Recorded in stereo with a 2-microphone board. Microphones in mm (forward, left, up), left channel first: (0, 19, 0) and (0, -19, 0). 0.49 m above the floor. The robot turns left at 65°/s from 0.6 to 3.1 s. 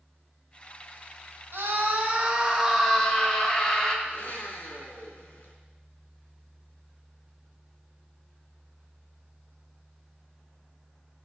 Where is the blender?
50° left (ahead or behind), 2.0 m.